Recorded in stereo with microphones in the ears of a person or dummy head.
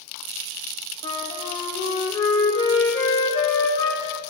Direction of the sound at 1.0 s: 30° left (ahead or behind).